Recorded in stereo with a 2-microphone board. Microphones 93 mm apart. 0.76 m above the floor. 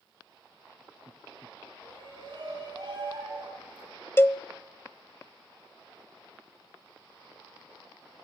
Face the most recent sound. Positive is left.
turn(degrees=25)  # may be behind; listen again after turning